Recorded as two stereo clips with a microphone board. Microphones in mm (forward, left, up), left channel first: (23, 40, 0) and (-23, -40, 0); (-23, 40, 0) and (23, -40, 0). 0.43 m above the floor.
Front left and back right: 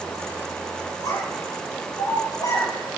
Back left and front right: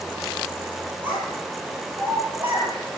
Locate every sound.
1.0 s a child speaking: 10° left, 7.5 m